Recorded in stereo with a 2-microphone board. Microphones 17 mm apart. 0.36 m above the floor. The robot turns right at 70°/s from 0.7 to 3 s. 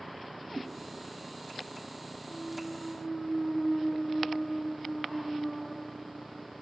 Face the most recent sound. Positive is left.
turn(degrees=35)